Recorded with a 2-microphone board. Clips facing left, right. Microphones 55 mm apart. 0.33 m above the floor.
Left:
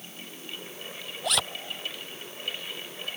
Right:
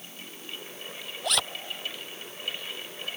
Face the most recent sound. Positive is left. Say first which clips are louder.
# even
turn(degrees=0)  # may be behind; listen again after turning